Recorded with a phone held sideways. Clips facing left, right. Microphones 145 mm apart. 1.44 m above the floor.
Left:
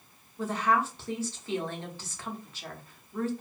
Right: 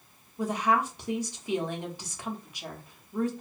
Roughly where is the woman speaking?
Centre.